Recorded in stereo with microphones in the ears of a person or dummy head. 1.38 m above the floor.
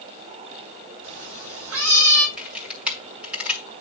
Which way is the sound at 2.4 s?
Centre (ahead or behind).